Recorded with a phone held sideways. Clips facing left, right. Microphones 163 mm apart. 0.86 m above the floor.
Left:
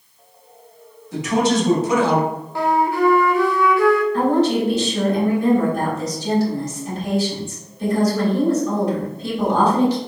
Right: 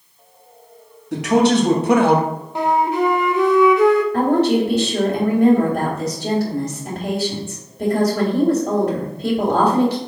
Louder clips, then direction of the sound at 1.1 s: Right 3 dB; 65° right (ahead or behind).